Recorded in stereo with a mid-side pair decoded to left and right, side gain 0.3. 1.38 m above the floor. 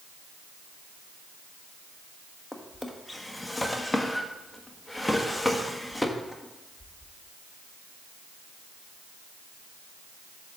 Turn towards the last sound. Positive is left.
turn(degrees=10)